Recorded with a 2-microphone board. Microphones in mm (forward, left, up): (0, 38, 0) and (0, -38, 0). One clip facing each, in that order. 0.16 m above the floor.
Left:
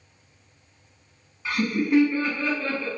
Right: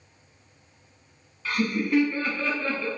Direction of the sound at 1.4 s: 15° left (ahead or behind).